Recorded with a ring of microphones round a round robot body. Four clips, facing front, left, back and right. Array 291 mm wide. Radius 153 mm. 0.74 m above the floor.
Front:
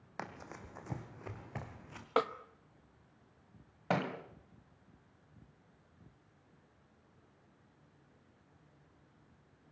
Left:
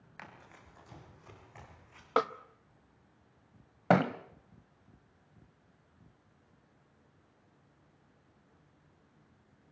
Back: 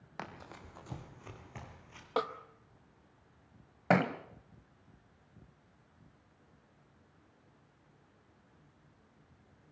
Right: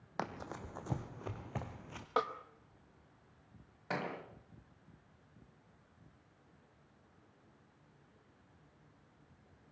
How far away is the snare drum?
About 1.0 m.